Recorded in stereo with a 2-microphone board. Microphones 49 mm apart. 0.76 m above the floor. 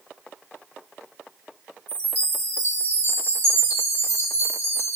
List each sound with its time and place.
1.9 s a chime: 50° left (ahead or behind), 1.7 m